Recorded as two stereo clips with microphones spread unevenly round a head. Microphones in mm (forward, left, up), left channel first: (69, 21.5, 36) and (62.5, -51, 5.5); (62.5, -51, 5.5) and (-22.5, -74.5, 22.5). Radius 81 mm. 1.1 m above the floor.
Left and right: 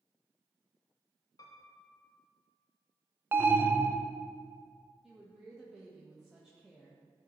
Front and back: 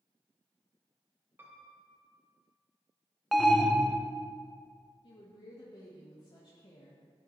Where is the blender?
I don't hear a blender.